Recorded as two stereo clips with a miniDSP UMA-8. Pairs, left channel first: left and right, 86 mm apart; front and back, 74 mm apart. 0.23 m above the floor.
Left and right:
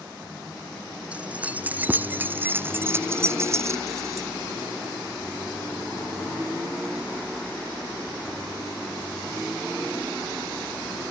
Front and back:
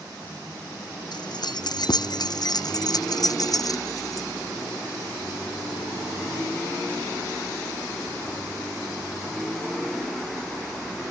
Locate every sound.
1.1 s keys jangling: 15° right; by 4.3 s 40° right